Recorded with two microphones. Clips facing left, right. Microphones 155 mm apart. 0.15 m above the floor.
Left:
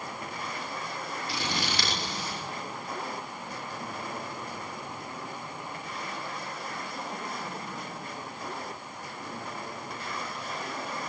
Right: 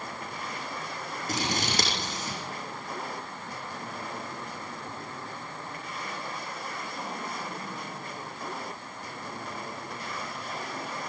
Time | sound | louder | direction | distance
1.3 | scissors | right 4 dB | 40° right (ahead or behind) | 8.5 m